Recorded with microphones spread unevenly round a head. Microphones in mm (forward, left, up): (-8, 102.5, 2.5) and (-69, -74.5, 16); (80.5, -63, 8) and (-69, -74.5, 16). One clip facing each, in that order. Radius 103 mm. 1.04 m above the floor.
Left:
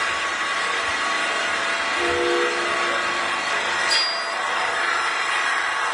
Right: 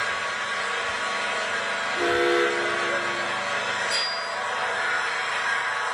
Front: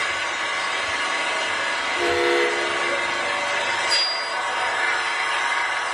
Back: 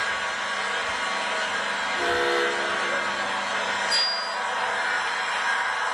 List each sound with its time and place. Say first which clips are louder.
0.0 s an engine running: left 3 dB, front 2 dB; 50° left, 3.5 m
2.0 s an alarm: even, front 5 dB; 45° right, 1.4 m
3.9 s a bell: left 3 dB, front 2 dB; 65° left, 6 m